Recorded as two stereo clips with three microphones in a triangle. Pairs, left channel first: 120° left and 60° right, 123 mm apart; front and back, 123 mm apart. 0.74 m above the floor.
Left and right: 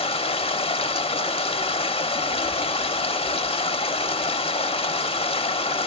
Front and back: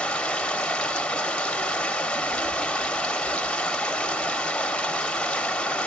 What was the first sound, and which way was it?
Running water, 80° left.